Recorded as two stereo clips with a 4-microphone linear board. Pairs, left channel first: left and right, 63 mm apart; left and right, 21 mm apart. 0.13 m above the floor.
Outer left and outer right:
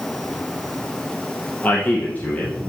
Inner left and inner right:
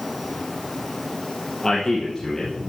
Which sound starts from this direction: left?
A man speaking, at 1.6 s.